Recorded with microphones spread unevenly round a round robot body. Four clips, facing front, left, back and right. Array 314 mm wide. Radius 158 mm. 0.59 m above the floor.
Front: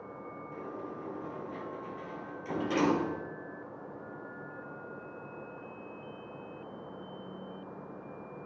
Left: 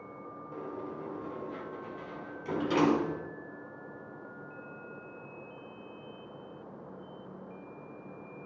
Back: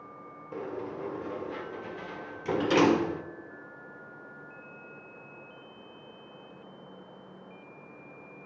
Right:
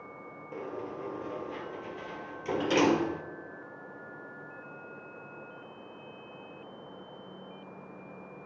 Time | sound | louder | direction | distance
0.5 | a sliding door | right 2 dB, back 7 dB | 170° right | 1.8 m